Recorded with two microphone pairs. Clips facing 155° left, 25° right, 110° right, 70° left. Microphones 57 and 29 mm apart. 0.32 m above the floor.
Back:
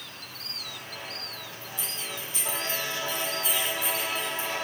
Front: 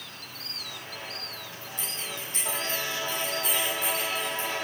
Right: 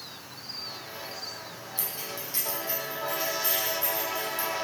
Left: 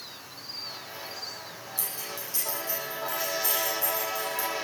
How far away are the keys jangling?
About 8.5 m.